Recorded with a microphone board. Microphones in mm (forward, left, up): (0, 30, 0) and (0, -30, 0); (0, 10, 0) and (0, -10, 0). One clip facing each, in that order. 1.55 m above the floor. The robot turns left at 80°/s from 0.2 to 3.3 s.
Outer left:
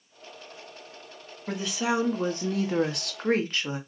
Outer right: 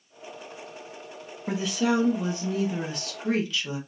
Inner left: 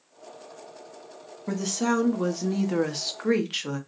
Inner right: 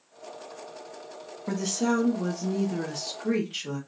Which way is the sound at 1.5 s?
165° right.